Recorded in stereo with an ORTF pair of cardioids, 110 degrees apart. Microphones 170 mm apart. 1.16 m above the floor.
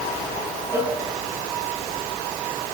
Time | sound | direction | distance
0.7 | a cowbell | 15° right | 10 m